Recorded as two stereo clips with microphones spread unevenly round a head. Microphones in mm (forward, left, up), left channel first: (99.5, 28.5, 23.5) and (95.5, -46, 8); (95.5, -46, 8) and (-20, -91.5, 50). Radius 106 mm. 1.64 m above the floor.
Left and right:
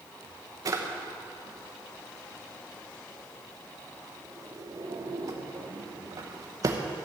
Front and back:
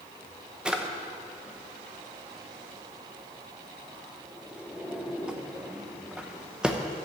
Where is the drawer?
120° right, 0.8 m.